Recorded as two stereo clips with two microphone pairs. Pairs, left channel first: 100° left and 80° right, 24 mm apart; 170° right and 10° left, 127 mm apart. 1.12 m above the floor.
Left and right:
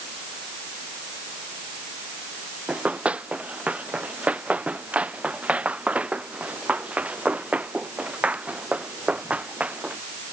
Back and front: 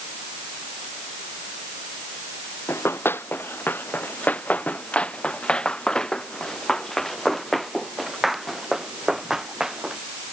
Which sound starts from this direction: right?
Running footsteps, at 2.7 s.